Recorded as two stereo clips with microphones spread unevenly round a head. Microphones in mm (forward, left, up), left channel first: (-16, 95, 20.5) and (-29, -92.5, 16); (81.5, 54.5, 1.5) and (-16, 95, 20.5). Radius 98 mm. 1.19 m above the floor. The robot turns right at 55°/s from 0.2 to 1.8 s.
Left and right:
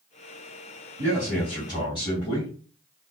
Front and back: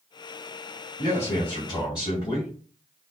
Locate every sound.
1.0 s a man speaking: 25° right, 2.5 m; by 2.5 s 20° left, 2.5 m